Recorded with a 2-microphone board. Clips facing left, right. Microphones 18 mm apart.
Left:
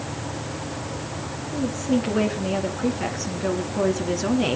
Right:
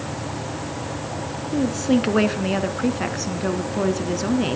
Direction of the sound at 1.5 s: 40° right (ahead or behind).